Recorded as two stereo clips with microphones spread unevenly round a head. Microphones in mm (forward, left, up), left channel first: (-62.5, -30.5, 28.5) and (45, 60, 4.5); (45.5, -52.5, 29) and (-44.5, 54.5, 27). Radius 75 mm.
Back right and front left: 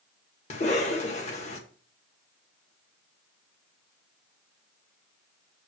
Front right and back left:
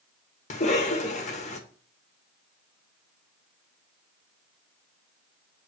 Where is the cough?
90° right, 1.6 m.